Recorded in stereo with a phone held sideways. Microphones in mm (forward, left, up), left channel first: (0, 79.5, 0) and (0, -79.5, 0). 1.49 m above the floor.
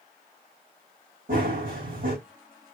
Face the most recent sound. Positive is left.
turn(degrees=-60)  # may be behind; listen again after turning